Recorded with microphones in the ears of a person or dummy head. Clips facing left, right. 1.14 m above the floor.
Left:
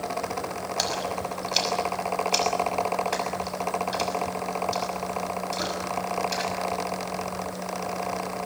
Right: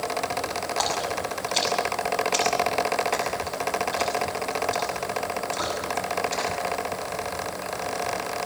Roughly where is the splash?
Left.